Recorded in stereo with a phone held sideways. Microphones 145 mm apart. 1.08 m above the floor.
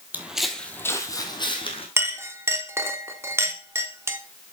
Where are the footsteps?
10° right (ahead or behind), 1.3 m; by 1.9 s 40° left (ahead or behind), 2 m.